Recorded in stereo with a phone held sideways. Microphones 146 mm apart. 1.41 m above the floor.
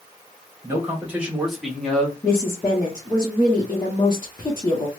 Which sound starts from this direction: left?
A woman speaking, at 2.2 s.